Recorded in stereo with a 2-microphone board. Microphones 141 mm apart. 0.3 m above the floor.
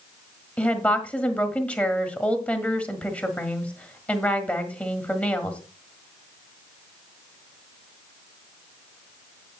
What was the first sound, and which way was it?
A woman speaking, 10° left (ahead or behind).